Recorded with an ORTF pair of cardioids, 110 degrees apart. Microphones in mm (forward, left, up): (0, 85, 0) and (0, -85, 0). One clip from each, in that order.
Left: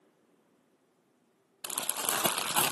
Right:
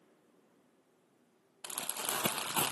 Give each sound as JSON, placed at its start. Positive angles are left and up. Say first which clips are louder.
{"t": 1.6, "sound": "crumpling", "louder": "left 5 dB", "azimuth_deg": 25, "distance_m": 0.8}